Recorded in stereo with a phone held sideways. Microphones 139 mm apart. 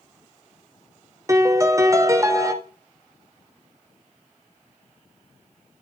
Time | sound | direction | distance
1.3 | a piano | 25° right (ahead or behind) | 0.7 m